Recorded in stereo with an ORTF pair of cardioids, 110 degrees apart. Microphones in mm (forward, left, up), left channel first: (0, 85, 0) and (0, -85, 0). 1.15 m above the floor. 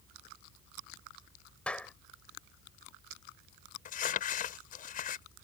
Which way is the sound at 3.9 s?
55° left.